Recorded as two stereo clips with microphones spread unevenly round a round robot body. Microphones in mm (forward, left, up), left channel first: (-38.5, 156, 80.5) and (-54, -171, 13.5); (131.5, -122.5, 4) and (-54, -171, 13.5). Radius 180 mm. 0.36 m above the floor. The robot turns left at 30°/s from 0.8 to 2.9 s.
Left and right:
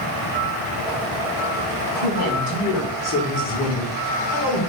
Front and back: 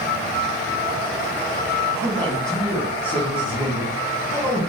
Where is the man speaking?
110° left, 1.6 m; by 4.6 s 85° left, 1.6 m.